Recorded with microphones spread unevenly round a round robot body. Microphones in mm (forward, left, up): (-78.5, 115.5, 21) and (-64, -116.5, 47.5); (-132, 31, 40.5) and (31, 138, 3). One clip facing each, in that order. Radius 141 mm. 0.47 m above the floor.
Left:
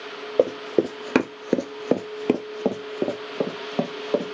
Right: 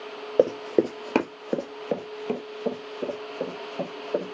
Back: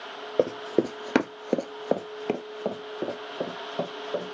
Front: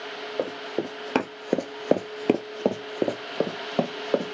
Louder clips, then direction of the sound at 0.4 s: Even, back 6 dB; 165° right.